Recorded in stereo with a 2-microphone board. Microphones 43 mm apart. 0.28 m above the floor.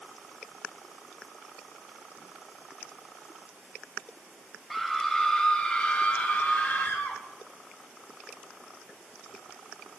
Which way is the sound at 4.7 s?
Centre (ahead or behind).